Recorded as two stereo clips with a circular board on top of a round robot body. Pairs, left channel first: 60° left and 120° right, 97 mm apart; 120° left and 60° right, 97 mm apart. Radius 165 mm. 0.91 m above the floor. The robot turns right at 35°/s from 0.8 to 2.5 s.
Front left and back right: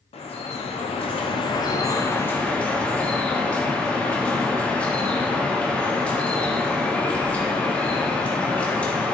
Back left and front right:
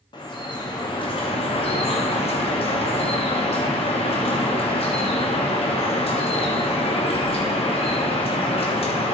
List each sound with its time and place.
0.1 s dripping: 80° left, 1.2 m; by 9.1 s 140° left, 1.2 m